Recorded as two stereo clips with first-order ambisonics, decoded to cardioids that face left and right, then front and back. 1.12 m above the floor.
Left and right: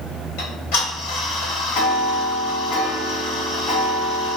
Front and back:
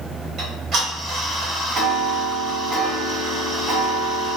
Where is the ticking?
115° left, 1.7 m.